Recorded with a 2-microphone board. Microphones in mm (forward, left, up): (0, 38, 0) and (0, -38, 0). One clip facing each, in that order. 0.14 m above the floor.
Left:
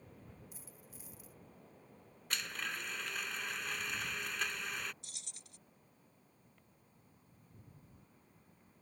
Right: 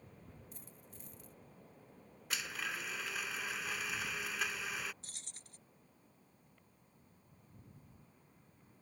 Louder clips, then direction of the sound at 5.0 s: Even; 45° right (ahead or behind).